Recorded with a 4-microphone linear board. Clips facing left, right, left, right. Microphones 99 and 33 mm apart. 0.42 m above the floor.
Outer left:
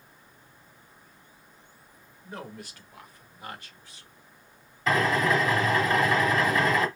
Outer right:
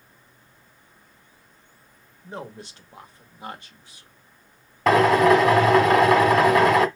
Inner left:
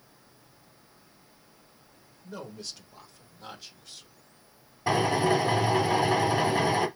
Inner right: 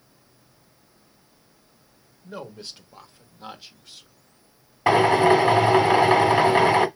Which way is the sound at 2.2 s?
25° right (ahead or behind).